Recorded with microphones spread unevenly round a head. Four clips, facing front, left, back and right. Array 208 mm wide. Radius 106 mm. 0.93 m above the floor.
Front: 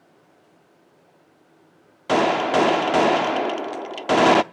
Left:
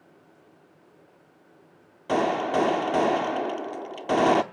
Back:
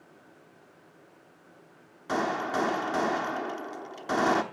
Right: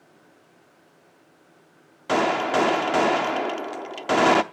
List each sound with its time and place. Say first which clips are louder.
2.1 s a gunshot: right 2 dB, front 10 dB; 10° right, 0.5 m